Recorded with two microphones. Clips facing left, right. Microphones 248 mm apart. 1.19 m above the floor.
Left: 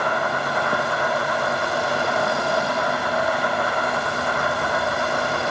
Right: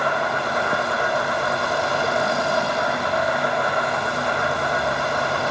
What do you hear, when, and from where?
0.0 s an insect: 50° right (ahead or behind), 3.5 m